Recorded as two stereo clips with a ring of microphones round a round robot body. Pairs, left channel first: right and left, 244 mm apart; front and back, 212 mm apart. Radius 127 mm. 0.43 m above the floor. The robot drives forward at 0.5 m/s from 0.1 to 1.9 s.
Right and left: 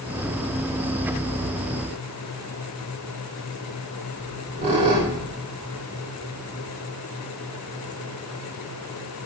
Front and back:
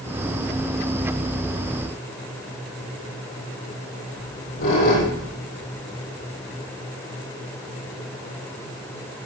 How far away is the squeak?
About 5.5 m.